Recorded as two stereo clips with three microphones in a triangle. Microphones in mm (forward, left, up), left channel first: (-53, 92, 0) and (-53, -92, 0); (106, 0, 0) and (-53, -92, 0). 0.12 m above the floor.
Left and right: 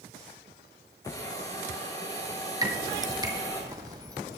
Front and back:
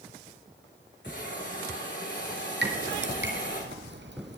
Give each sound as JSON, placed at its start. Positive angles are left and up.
{"t": 1.0, "sound": "a hiss", "azimuth_deg": 20, "distance_m": 7.0}
{"t": 2.6, "sound": "dripping", "azimuth_deg": -160, "distance_m": 2.0}